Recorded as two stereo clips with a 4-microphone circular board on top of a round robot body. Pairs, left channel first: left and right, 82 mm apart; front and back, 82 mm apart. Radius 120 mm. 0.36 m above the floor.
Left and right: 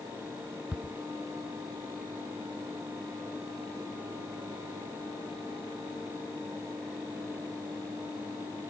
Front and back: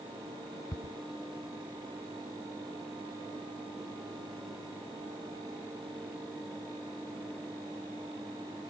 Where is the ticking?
15° right, 1.0 m.